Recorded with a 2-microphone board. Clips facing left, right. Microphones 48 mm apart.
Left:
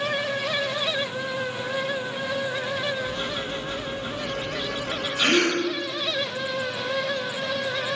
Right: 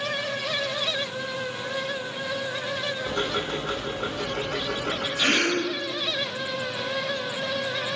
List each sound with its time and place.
3.1 s ticking: 70° right (ahead or behind), 2 m
5.2 s a gasp: 40° left (ahead or behind), 4.5 m